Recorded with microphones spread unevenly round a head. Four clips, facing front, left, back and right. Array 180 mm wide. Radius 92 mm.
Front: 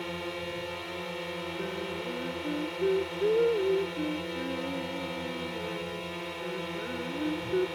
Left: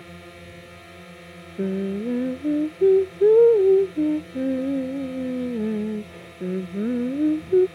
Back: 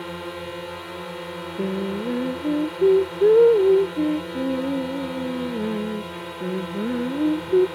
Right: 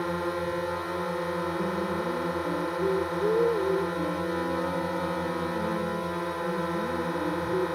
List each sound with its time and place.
0.0 s a drone: 110° right
1.6 s singing: 125° left